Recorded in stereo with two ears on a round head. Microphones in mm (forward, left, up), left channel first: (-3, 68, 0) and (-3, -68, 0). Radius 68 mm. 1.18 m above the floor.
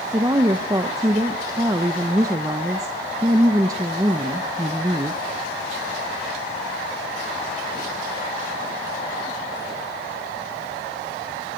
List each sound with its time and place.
0.1 s a woman speaking: 20° right (ahead or behind), 0.8 m